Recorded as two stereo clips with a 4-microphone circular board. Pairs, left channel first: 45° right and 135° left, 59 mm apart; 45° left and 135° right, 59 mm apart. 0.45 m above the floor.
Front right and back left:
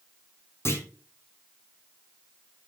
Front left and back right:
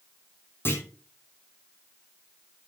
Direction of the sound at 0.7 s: 5° right.